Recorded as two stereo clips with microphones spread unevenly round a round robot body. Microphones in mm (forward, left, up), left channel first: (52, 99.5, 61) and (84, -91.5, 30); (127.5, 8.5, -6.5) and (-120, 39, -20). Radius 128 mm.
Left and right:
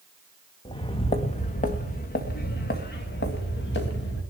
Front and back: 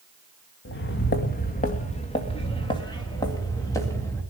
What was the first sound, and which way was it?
Footsteps, 35° left.